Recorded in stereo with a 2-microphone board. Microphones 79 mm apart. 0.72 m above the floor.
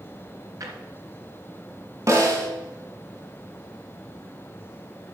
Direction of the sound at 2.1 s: 40° right (ahead or behind).